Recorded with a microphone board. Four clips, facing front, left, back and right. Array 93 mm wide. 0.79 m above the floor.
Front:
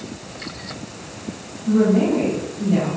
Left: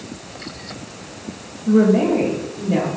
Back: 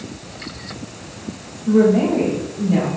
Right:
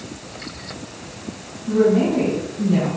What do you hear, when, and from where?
1.7 s a woman speaking: 100° left, 1.1 m; by 2.9 s 90° left, 1.6 m